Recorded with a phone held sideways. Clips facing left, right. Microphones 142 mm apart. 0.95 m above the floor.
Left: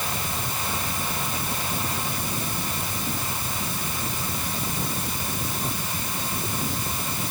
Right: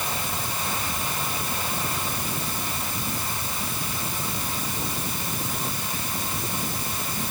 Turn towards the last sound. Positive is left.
No sound to turn to.